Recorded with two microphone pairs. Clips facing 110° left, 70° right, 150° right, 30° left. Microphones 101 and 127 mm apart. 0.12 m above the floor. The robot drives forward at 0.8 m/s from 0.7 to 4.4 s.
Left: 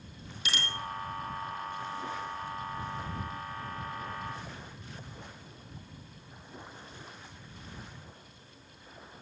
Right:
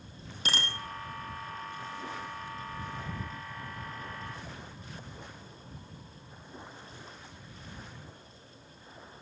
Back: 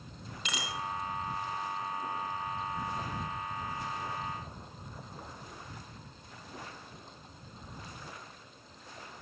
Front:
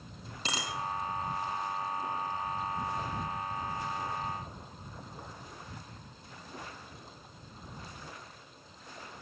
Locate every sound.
0.5 s a bicycle bell: 25° right, 3 m